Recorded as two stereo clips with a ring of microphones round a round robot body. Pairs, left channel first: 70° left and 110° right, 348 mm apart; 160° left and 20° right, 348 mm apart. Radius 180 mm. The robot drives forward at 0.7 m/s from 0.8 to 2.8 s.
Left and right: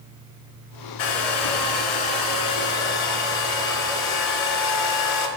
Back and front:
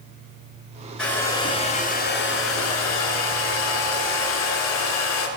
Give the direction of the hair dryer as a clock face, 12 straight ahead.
10 o'clock.